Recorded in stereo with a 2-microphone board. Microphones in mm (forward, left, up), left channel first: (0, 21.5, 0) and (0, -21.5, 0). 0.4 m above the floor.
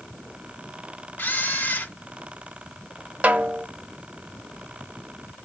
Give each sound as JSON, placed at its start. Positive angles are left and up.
{"t": 1.2, "sound": "a camera shutter", "side_deg": 45, "distance_m": 0.9}
{"t": 3.2, "sound": "a snare drum", "side_deg": -35, "distance_m": 0.5}